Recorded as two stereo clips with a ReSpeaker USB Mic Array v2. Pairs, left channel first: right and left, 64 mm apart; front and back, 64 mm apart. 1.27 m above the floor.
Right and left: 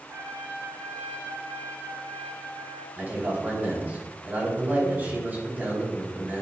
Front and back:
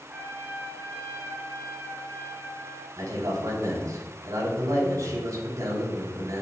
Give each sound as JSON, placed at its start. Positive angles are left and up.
{"t": 0.1, "sound": "a trumpet", "azimuth_deg": 120, "distance_m": 3.0}
{"t": 3.0, "sound": "a man speaking", "azimuth_deg": 150, "distance_m": 4.0}